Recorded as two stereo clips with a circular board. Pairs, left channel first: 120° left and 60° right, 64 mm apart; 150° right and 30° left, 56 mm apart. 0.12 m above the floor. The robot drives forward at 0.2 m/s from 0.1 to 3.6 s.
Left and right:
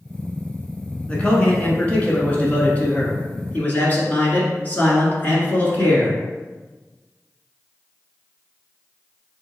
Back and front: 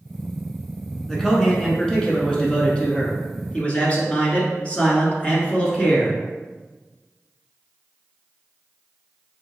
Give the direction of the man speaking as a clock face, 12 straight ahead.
7 o'clock.